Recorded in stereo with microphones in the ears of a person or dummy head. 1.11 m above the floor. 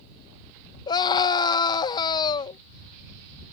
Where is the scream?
25° left (ahead or behind).